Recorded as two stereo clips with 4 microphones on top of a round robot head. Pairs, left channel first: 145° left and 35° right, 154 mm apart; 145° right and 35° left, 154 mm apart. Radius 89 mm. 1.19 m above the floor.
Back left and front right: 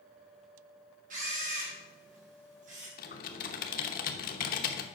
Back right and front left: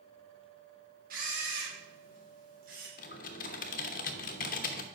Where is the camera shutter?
5° left, 2.5 m.